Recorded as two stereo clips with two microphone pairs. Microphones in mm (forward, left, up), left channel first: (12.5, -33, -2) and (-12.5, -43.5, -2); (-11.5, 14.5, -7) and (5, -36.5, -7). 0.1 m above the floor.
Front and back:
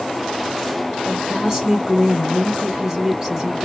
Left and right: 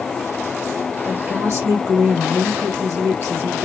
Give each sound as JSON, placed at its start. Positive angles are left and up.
{"t": 1.1, "sound": "a woman speaking", "azimuth_deg": -90, "distance_m": 3.0}